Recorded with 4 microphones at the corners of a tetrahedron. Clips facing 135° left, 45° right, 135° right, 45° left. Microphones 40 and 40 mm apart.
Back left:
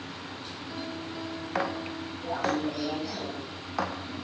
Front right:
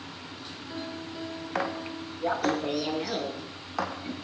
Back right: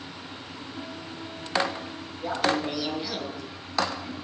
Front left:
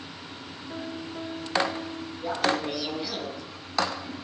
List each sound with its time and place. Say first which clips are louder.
0.7 s a piano: even, front left 5 dB; 35° left, 7.5 m
2.2 s laughter: front right 2 dB, back right 1 dB; 50° right, 5.5 m